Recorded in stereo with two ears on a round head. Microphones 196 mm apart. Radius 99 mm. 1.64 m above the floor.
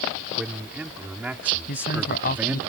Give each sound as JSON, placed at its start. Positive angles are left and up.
{"t": 0.4, "sound": "a man speaking", "side_deg": -5}
{"t": 1.7, "sound": "a man speaking", "side_deg": 45}